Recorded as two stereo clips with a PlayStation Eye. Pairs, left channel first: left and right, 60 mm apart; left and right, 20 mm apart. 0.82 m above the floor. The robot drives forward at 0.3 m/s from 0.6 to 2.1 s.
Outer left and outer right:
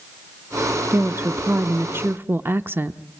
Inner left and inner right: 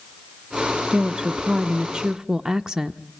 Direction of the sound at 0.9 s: 35° right (ahead or behind).